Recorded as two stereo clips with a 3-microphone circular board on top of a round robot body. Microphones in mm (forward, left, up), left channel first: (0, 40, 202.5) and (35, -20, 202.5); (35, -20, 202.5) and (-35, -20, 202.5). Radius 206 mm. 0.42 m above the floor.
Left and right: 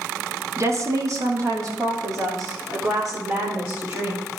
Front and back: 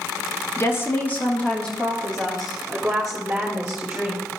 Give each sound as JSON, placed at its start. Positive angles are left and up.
{"t": 0.6, "sound": "a woman speaking", "azimuth_deg": -35, "distance_m": 1.5}